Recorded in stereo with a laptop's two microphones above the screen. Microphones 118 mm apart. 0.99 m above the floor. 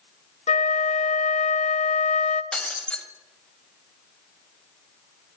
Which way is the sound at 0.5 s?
80° left.